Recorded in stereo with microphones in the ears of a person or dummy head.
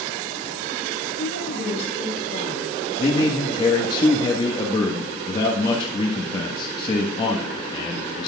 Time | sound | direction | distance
1.2 | a woman speaking | 60° left (ahead or behind) | 5 m
3.0 | a man speaking | 30° left (ahead or behind) | 1.3 m